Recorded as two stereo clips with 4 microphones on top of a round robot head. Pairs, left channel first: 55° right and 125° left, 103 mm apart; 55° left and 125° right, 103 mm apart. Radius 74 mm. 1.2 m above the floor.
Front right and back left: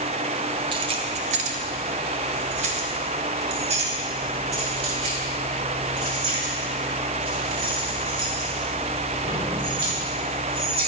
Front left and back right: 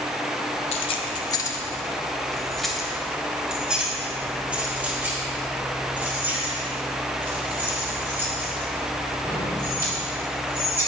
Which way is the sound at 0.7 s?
80° left.